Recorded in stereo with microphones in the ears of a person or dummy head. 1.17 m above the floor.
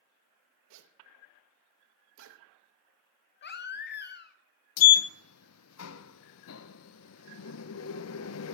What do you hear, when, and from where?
0.7 s a zipper: 70° right (ahead or behind), 1.2 m
3.4 s a baby crying: 50° left (ahead or behind), 0.8 m
4.8 s a sliding door: 75° left (ahead or behind), 0.5 m